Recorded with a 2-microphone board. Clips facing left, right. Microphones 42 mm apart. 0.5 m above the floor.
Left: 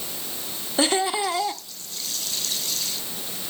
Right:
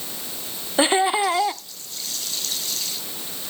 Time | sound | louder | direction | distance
0.8 | laughter | right 4 dB | 25° right (ahead or behind) | 0.8 m